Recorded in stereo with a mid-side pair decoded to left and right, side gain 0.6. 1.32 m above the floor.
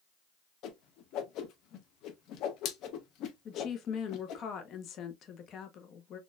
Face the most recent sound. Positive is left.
turn(degrees=50)